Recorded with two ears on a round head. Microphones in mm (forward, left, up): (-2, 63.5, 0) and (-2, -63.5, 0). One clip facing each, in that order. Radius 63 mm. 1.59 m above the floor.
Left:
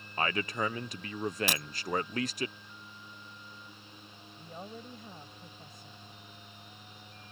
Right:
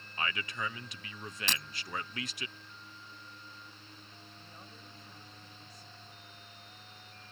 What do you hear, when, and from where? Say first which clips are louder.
0.2 s a man speaking: left 6 dB; 35° left (ahead or behind)
1.5 s breaking glass: left 4 dB; 10° left (ahead or behind)
4.3 s a woman speaking: left 13 dB; 45° left (ahead or behind)